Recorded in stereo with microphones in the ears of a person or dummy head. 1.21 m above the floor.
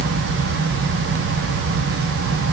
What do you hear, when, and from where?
Only background noise.